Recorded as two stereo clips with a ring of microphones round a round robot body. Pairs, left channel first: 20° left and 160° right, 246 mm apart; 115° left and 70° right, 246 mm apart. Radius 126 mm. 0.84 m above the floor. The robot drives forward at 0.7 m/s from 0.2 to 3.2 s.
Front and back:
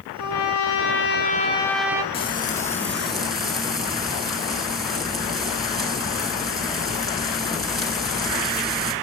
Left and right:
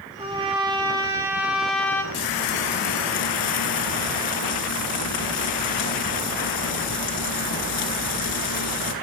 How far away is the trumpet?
About 1.3 m.